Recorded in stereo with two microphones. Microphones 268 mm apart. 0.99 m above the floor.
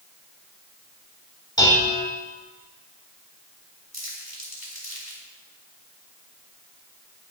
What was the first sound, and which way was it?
Dishes clattering, 15° left (ahead or behind).